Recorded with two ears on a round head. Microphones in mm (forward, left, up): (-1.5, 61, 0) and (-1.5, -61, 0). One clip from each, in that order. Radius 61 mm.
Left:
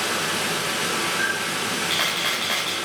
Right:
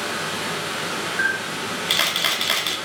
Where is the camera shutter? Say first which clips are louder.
Right 1 dB; 65° right (ahead or behind), 2 m.